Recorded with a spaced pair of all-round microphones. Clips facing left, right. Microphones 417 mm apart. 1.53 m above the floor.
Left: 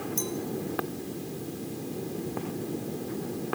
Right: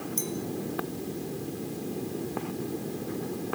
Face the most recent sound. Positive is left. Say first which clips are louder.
# left 1 dB
turn(degrees=5)  # may be behind; listen again after turning